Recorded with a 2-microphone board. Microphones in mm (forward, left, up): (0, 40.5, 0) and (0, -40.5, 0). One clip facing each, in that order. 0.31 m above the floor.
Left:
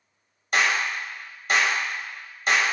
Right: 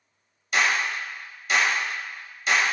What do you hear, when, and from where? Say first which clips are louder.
0.5 s a clap: even; 45° left (ahead or behind), 1.0 m